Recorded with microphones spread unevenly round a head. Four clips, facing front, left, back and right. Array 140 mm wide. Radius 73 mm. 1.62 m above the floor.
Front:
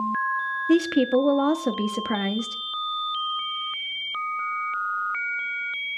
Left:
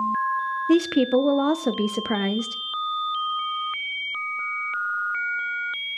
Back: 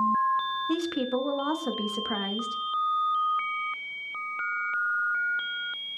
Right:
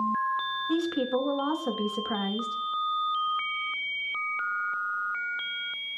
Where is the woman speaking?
55° left, 0.6 m.